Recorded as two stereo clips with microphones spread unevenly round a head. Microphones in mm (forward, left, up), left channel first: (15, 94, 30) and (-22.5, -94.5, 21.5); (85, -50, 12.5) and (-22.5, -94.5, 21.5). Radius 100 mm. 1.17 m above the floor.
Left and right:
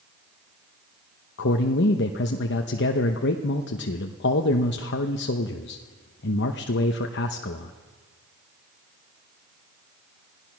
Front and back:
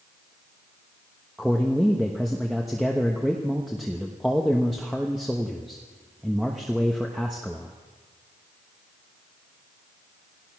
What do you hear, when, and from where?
1.4 s a man speaking: 115° left, 1.0 m